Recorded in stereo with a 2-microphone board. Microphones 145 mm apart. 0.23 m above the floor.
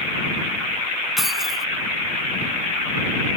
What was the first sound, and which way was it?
Keys jangling, centre (ahead or behind).